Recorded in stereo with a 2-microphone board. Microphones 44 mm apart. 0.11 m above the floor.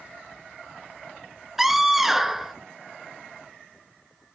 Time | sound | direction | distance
1.6 | a scream | 5° right (ahead or behind) | 1.1 m